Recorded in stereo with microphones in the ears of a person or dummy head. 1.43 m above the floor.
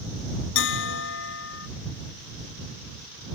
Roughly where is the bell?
Left.